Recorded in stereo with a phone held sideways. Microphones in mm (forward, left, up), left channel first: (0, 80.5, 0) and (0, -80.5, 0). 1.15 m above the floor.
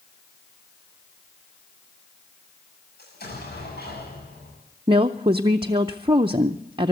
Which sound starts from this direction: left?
An explosion, at 3.0 s.